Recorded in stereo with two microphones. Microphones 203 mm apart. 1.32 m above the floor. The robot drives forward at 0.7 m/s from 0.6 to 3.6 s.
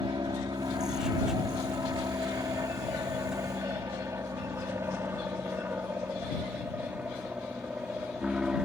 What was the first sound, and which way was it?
An aircraft, 20° right (ahead or behind).